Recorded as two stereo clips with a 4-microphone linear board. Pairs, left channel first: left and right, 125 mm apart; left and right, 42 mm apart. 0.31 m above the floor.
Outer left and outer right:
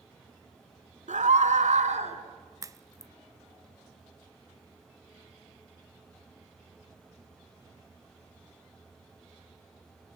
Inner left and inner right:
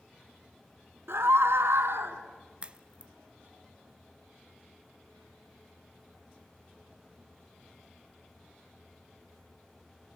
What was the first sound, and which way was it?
A scream, 70° right (ahead or behind).